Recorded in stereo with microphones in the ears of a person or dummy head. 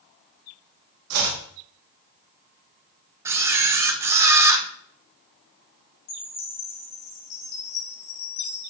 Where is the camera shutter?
15° right (ahead or behind), 0.5 m.